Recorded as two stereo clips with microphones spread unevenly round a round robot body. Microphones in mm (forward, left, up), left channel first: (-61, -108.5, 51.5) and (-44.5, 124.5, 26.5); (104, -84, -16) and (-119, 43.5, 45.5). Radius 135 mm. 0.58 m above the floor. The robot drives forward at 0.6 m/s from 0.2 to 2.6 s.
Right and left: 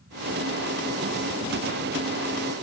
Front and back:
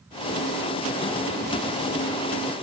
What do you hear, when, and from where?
Only background noise.